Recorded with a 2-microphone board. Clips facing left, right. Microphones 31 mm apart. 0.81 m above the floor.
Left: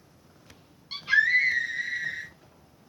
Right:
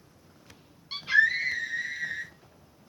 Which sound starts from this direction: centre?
A scream, at 0.9 s.